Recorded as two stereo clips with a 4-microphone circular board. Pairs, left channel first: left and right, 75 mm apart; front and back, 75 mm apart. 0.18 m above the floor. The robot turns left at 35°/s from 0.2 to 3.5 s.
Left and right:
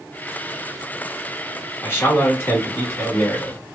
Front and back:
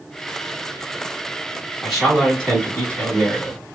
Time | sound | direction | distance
1.8 | a man speaking | 90° left | 1.5 m